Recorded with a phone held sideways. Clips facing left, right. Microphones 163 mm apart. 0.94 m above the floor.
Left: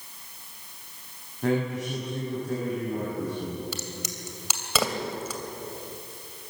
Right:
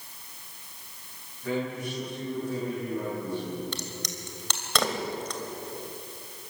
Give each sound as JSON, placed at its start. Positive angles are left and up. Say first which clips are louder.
{"t": 1.4, "sound": "a man speaking", "louder": "left 4 dB", "side_deg": 80, "distance_m": 7.5}
{"t": 3.7, "sound": "a crack", "louder": "left 1 dB", "side_deg": 5, "distance_m": 2.5}